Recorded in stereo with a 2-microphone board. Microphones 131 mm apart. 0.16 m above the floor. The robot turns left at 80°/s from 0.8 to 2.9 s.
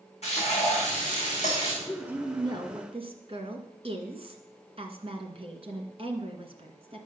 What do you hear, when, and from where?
0.2 s frying: 120° left, 5.5 m; by 1.7 s 45° left, 5.5 m
1.8 s a woman speaking: straight ahead, 2 m; by 7.0 s 85° right, 2 m